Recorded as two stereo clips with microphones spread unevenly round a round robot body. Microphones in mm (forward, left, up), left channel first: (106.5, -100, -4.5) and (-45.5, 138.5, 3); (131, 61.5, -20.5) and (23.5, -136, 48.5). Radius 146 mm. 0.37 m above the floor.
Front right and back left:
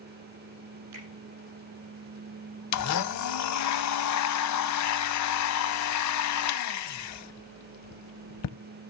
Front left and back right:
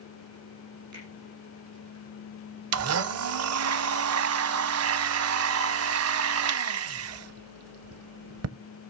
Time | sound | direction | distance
0.9 | a finger snap | 160° left | 9 m
2.7 | a blender | 95° right | 0.6 m